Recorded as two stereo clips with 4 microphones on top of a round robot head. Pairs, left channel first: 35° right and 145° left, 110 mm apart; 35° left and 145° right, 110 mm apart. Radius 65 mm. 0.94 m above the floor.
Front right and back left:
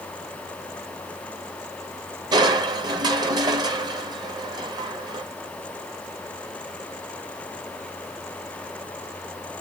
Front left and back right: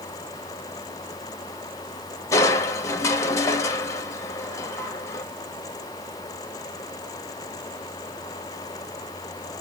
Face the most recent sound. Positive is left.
turn(degrees=95)